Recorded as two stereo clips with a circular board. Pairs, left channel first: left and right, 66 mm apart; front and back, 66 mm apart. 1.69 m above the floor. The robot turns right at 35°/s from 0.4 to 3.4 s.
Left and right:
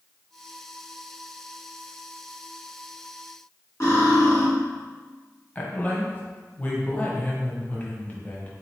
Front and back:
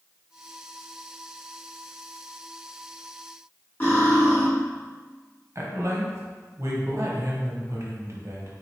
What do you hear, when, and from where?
3.8 s cutlery clinking: 50° left, 2.0 m
5.5 s a woman speaking: 150° left, 0.9 m